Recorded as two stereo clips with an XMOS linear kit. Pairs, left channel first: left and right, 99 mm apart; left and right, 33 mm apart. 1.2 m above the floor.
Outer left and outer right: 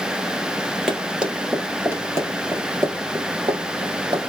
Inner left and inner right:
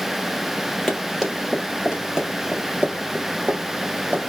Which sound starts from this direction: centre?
Running footsteps, at 0.9 s.